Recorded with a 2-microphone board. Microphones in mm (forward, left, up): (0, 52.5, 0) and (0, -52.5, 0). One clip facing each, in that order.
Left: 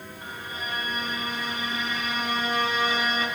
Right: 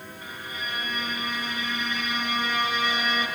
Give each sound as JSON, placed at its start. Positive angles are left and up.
{"t": 0.2, "sound": "a violin", "side_deg": 40, "distance_m": 1.5}